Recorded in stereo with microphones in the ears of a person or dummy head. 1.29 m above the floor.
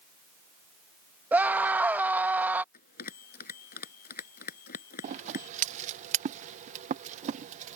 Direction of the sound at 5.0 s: 40° right (ahead or behind).